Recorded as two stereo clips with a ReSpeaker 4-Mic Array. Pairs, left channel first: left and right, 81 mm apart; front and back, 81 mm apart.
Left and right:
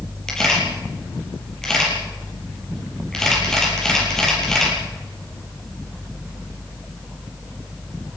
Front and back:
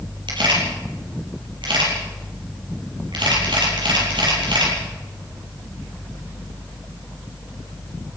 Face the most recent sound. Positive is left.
turn(degrees=175)